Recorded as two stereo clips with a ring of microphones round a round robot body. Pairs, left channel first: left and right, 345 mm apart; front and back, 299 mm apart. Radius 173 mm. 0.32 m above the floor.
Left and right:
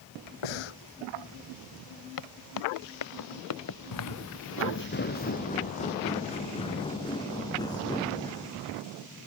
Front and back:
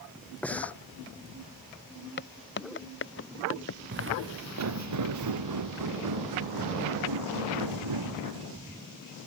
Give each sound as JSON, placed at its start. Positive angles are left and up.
{"t": 0.4, "sound": "breathing", "azimuth_deg": 85}
{"t": 2.2, "sound": "footsteps", "azimuth_deg": 55}
{"t": 3.9, "sound": "footsteps", "azimuth_deg": 125}